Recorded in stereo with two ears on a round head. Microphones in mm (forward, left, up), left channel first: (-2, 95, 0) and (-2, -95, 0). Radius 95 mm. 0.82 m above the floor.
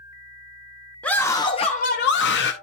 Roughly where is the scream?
Centre.